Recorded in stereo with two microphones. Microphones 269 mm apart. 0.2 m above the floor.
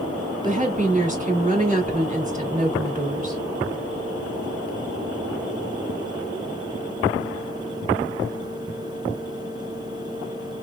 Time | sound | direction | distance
0.4 | a woman speaking | 30° right (ahead or behind) | 1.8 m